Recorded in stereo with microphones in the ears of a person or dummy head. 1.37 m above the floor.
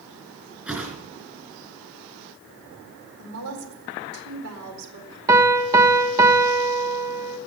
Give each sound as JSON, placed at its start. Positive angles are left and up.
{"t": 0.7, "sound": "a whoosh", "side_deg": -10, "distance_m": 4.0}
{"t": 3.2, "sound": "a woman speaking", "side_deg": -80, "distance_m": 4.0}
{"t": 5.3, "sound": "a piano", "side_deg": -15, "distance_m": 1.2}